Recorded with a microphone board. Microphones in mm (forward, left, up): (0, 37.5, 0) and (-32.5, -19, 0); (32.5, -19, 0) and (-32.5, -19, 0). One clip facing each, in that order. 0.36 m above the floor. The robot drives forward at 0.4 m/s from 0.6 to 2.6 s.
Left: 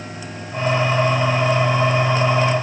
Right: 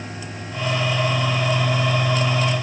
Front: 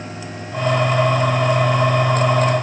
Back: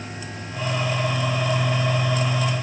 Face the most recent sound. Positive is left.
No sound to turn to.